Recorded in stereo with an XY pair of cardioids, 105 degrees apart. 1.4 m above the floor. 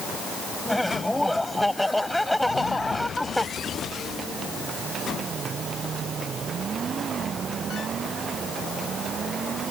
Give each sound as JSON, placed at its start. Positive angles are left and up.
{"t": 0.7, "sound": "laughter", "azimuth_deg": 5}